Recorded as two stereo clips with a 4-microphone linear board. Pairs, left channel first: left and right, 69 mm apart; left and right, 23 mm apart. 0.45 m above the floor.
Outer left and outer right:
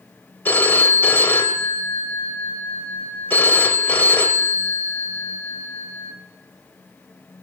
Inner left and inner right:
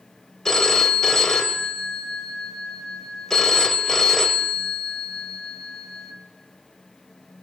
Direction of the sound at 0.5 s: 30° left (ahead or behind).